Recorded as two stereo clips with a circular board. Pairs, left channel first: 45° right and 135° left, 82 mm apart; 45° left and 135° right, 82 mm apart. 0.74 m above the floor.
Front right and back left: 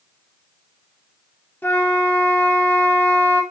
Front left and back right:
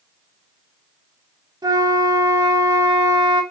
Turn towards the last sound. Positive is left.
turn(degrees=-110)